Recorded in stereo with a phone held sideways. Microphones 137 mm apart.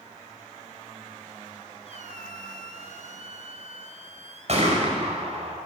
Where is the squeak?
55° right (ahead or behind), 1.2 m.